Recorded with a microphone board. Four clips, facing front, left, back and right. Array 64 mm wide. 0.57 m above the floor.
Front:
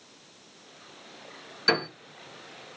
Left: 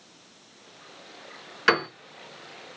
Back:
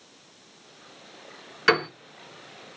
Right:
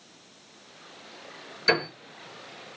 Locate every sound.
1.7 s a piano: 130° left, 3 m